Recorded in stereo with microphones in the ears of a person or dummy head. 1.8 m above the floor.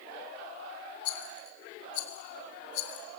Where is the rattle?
65° left (ahead or behind), 4 m.